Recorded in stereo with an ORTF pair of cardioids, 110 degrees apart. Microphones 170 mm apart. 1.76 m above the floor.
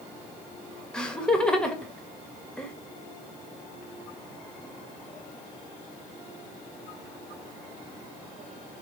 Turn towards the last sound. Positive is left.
turn(degrees=5)